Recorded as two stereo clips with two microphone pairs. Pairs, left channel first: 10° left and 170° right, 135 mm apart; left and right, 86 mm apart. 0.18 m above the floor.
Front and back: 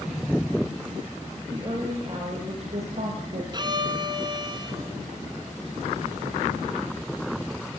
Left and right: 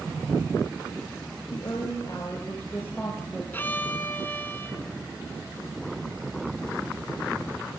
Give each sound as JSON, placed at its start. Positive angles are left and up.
{"t": 1.5, "sound": "a woman speaking", "azimuth_deg": 130, "distance_m": 4.0}
{"t": 3.5, "sound": "a violin", "azimuth_deg": 150, "distance_m": 1.8}